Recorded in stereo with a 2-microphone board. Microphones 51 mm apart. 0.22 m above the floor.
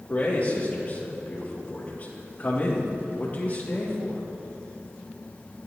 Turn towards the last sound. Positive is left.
turn(degrees=30)  # may be behind; listen again after turning